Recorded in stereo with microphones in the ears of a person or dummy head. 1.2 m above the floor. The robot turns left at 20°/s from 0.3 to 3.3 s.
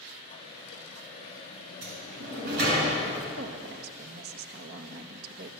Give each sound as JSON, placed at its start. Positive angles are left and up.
{"t": 1.8, "sound": "a sliding door", "side_deg": -80, "distance_m": 6.5}
{"t": 3.4, "sound": "a woman speaking", "side_deg": -60, "distance_m": 2.0}